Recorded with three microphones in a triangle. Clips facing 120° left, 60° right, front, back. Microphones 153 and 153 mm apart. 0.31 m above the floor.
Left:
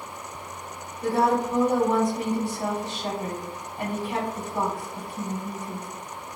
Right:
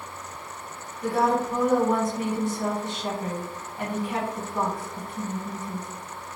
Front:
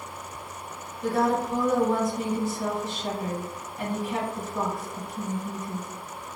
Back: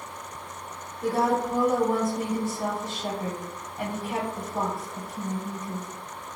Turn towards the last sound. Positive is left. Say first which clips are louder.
# left 1 dB, even
turn(degrees=165)